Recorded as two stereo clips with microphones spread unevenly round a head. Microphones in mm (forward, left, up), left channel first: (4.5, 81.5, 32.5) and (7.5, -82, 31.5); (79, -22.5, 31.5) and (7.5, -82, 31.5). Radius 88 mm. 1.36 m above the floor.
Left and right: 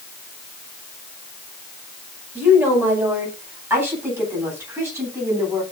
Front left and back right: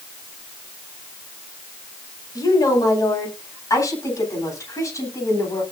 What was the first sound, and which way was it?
A woman speaking, 10° right.